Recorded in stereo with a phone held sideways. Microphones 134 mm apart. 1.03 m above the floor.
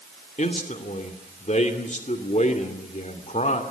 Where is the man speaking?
60° left (ahead or behind), 2.5 m.